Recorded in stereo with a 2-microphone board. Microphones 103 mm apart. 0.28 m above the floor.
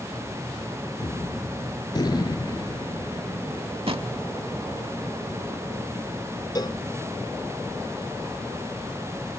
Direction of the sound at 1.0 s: 45° left (ahead or behind).